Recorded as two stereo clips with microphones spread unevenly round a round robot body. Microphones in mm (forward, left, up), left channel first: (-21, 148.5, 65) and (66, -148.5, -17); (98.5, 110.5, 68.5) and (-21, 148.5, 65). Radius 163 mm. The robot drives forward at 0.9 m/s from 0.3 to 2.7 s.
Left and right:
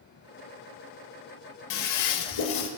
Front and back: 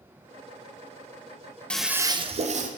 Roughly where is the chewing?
No chewing in this recording.